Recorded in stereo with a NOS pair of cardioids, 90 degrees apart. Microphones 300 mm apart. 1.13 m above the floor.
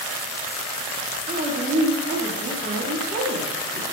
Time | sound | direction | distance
1.3 | a woman speaking | 35° right | 1.7 m